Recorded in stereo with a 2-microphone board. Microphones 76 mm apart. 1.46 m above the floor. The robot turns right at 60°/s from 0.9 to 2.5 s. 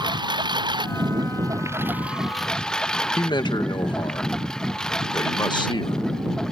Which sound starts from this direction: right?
A lawn mower, at 0.0 s.